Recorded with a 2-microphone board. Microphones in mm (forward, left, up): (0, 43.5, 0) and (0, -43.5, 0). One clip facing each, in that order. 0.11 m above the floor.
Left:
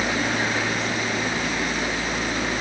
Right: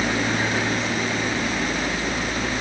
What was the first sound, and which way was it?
Only background noise.